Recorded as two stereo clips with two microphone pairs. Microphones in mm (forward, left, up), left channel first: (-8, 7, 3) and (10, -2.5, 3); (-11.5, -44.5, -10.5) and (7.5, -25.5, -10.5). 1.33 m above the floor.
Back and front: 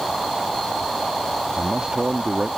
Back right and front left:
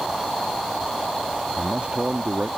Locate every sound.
1.6 s a man speaking: 10° left